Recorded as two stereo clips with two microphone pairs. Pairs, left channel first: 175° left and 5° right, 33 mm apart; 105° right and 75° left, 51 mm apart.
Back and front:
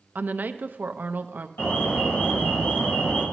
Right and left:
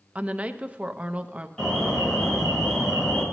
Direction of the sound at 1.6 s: 175° left.